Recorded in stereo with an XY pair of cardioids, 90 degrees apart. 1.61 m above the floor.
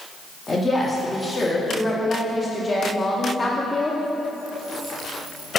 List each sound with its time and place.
0.5 s a woman speaking: 30° left, 1.2 m